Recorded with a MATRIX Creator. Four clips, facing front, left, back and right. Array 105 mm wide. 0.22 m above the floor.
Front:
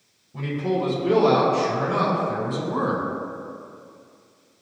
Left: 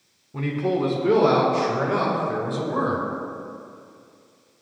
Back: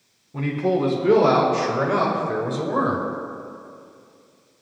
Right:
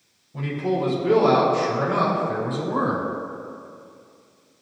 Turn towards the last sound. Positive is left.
turn(degrees=160)